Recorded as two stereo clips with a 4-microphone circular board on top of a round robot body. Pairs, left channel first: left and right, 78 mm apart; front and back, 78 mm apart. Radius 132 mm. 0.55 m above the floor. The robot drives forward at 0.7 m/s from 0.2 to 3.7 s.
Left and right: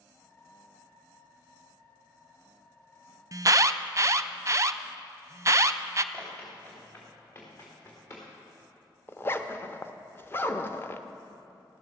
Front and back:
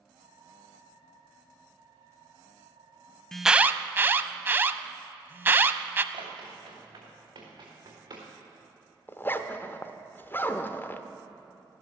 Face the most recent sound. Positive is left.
turn(degrees=45)